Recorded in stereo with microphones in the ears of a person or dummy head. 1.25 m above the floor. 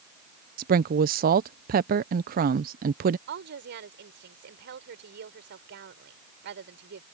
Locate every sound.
0.6 s a woman speaking: 45° right (ahead or behind)
3.3 s a woman speaking: 50° right (ahead or behind)